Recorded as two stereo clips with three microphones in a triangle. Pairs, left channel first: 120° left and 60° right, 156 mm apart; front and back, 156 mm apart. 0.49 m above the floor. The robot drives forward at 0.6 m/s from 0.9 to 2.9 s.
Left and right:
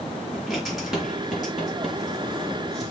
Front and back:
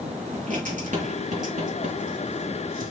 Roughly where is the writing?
Behind right.